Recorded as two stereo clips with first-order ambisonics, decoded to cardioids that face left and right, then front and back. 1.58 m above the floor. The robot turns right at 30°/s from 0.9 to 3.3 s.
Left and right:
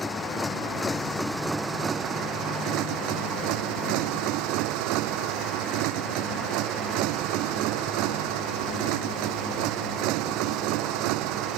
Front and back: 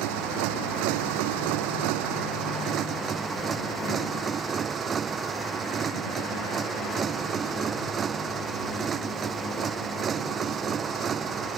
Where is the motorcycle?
170° left; by 11.6 s 115° right.